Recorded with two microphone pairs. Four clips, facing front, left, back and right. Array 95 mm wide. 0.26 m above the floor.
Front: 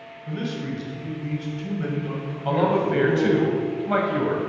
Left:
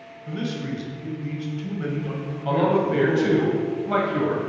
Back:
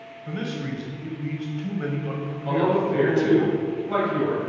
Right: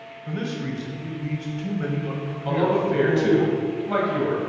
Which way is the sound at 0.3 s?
135° right.